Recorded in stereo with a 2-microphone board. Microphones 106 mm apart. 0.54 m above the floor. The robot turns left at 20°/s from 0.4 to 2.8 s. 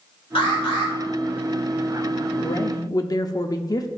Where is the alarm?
60° left (ahead or behind), 2.5 m; by 0.9 s 65° left (ahead or behind), 2.5 m.